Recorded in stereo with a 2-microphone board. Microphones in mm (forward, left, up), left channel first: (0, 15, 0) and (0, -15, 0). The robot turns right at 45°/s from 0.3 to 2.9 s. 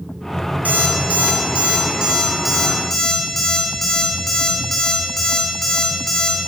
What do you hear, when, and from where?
0.7 s an alarm clock: 85° right, 3.5 m; by 6.5 s 10° left (ahead or behind), 3.5 m